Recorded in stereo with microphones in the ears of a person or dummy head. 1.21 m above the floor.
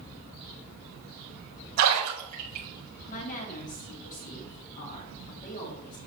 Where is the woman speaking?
40° left (ahead or behind), 2.5 m.